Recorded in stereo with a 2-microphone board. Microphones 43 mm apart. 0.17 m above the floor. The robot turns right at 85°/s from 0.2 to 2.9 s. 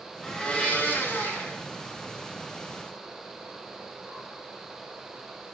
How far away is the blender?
About 2.5 m.